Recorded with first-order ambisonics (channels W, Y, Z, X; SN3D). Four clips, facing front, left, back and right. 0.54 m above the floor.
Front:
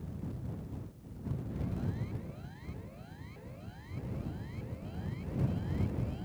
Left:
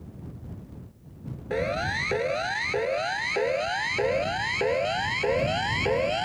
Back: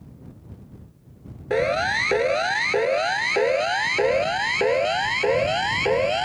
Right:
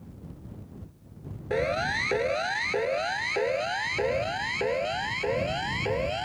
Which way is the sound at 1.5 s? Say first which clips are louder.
Right 1 dB, back 23 dB; 175° right.